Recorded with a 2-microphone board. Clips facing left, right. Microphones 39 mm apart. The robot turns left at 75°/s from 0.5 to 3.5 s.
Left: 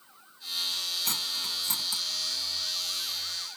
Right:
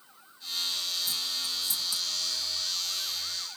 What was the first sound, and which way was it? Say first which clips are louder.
Cutlery clinking: left 1 dB; 80° left.